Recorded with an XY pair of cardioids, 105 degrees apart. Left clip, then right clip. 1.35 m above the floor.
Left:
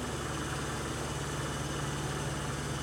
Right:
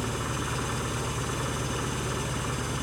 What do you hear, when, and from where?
0.0 s an engine running: 65° right, 5.5 m